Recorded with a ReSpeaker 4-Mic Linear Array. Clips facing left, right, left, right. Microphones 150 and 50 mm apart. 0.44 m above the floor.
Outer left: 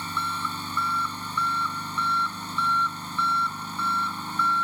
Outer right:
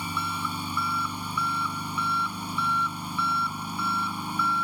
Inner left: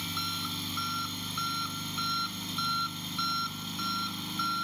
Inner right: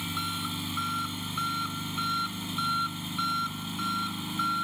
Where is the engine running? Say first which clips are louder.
Even, inner right 2 dB; 10° right (ahead or behind).